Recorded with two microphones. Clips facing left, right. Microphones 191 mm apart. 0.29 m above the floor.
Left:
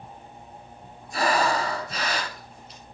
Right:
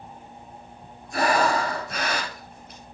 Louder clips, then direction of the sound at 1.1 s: Right 2 dB; 60° right (ahead or behind).